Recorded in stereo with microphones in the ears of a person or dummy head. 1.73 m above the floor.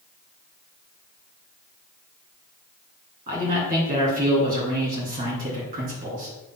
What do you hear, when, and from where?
3.3 s a man speaking: 35° right (ahead or behind), 3 m